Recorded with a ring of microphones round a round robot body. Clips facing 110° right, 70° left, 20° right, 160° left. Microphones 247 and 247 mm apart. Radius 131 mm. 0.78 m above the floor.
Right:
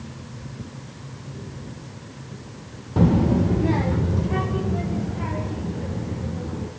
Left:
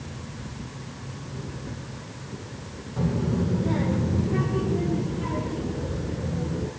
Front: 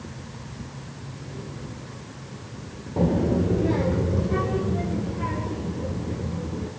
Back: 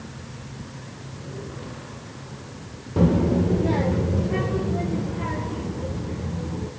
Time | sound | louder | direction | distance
3.0 | a child speaking | right 7 dB, back 2 dB | 135° right | 0.6 m